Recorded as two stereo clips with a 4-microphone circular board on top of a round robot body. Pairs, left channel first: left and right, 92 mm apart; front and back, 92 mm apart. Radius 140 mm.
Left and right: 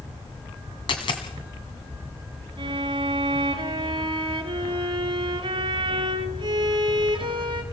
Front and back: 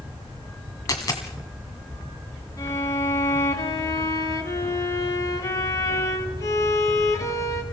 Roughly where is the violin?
Ahead right.